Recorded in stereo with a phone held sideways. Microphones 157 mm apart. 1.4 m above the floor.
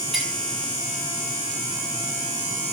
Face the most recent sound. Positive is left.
turn(degrees=0)  # may be behind; listen again after turning